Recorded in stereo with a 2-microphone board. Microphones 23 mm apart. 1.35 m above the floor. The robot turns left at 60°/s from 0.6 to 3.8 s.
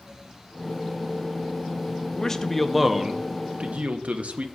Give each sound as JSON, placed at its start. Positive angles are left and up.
{"t": 2.1, "sound": "a man speaking", "azimuth_deg": 30, "distance_m": 0.7}